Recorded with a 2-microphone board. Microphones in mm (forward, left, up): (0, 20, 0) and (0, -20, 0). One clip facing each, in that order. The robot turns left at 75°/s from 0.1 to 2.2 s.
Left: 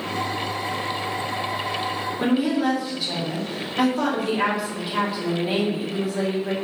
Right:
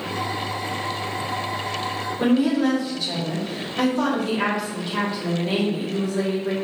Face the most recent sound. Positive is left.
turn(degrees=5)  # may be behind; listen again after turning